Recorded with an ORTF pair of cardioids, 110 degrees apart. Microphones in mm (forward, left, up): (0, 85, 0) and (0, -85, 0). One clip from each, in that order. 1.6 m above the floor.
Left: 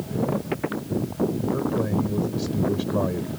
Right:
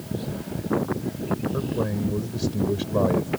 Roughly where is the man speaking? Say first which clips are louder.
Left 2 dB; ahead.